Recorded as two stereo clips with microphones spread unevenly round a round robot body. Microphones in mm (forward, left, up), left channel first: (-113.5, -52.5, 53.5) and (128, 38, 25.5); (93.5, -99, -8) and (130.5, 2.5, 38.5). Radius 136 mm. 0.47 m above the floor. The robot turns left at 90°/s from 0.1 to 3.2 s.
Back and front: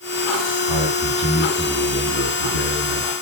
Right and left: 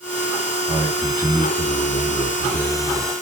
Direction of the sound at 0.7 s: 30° left.